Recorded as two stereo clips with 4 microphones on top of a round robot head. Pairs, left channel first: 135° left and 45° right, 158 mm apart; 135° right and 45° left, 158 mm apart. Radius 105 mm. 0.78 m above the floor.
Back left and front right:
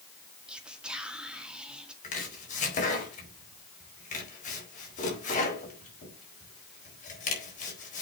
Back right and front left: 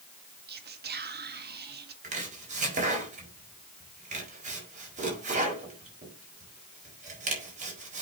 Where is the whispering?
40° left, 1.8 m.